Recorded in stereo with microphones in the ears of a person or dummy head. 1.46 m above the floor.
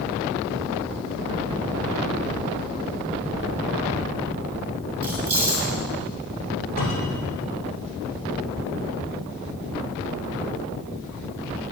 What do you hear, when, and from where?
5.0 s keys jangling: 15° right (ahead or behind), 3.5 m
6.8 s a cupboard door: 55° left (ahead or behind), 3 m